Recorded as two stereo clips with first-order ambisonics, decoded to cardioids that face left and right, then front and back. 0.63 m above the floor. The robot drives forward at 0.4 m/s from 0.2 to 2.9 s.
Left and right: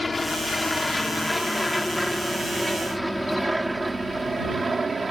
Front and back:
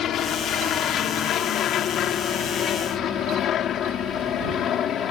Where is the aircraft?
20° left; by 5.1 s 25° right.